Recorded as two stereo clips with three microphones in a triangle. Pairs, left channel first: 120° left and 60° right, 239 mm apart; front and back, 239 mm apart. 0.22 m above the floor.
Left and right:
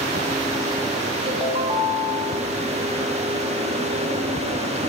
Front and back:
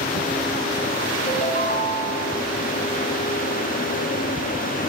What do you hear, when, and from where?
1.2 s a ringtone: 5° right, 1.2 m